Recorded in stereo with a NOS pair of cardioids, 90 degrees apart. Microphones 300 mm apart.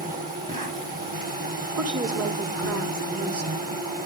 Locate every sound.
0.0 s an insect: 30° right, 4 m
1.8 s a woman speaking: 55° right, 4.5 m